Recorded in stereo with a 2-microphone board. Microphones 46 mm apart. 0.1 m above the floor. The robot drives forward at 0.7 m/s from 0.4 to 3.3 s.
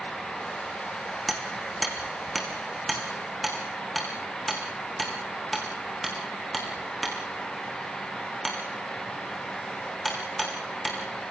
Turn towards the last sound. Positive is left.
turn(degrees=0)  # may be behind; listen again after turning